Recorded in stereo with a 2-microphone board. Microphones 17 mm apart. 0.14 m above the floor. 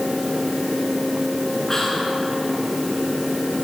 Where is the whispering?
30° left (ahead or behind), 1.8 m.